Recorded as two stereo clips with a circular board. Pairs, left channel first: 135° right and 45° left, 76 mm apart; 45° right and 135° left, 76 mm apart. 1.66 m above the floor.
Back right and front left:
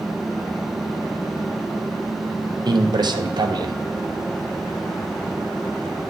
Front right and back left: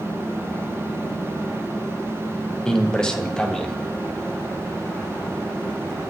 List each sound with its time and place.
2.6 s a man speaking: 35° left, 0.7 m